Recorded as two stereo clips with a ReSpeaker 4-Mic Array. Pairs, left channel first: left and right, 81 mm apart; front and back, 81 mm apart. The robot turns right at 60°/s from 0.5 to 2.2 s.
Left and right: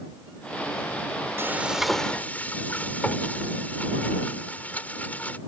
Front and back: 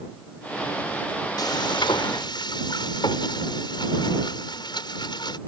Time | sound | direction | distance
1.4 | frying | 30° right | ?